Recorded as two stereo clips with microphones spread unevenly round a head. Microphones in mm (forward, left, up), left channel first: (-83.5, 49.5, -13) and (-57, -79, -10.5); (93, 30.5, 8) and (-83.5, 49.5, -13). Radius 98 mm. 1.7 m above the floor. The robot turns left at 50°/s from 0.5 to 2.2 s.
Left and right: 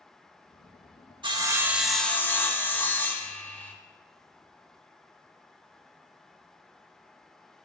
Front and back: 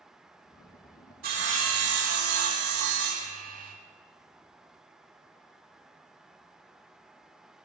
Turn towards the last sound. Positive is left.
turn(degrees=180)